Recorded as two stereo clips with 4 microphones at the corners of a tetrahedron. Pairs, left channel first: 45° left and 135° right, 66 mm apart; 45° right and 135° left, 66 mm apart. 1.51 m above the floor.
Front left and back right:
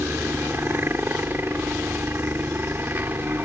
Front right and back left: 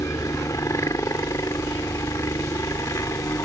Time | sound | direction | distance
0.0 | a helicopter | 80° right | ?